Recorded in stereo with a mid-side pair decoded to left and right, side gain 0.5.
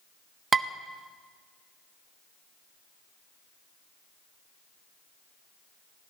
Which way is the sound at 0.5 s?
30° right.